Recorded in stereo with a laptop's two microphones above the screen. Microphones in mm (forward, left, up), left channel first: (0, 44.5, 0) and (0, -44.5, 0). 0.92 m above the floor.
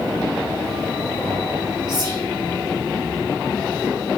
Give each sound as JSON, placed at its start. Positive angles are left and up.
{"t": 1.9, "sound": "whispering", "side_deg": -55, "distance_m": 1.2}